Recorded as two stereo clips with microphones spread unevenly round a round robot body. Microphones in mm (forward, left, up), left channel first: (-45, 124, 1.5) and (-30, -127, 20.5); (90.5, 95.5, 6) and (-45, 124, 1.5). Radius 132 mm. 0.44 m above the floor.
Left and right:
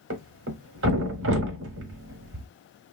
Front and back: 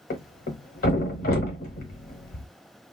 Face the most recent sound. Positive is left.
turn(degrees=-40)